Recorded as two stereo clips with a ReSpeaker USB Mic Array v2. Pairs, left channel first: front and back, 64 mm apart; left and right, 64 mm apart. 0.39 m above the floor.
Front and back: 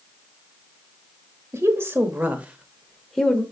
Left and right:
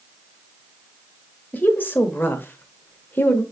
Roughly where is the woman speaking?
Behind left.